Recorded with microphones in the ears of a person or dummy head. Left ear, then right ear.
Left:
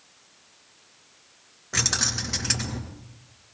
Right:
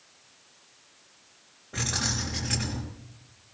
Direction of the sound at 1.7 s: 65° left (ahead or behind).